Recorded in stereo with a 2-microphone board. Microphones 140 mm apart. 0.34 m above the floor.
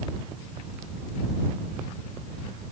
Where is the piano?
No piano in this recording.